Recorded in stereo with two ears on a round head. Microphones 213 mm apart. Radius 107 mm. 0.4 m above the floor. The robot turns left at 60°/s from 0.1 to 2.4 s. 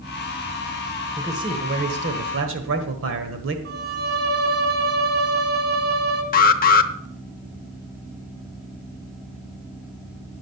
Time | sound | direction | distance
1.2 | a man speaking | 10° right | 1.5 m
3.6 | a violin | 45° right (ahead or behind) | 2.5 m
6.3 | an alarm | 35° left (ahead or behind) | 0.9 m